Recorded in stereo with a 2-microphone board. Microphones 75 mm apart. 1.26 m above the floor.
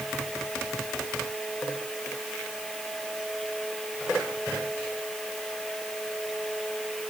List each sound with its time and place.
Only background noise.